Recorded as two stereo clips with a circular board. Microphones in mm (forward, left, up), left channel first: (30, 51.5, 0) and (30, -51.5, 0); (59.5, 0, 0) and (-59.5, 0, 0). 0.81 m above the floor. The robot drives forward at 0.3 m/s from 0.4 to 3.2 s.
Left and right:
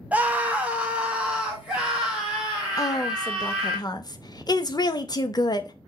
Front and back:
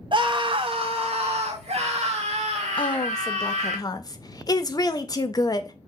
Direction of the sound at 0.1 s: 160° right.